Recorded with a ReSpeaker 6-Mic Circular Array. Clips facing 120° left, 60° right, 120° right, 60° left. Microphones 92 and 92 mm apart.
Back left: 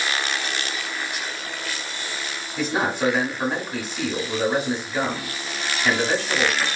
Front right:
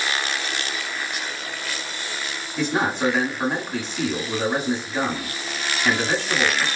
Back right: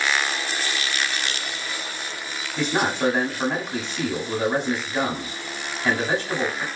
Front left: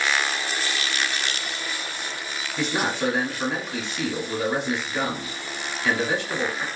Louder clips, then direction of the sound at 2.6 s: Front right 1 dB, back right 2 dB; 160° right.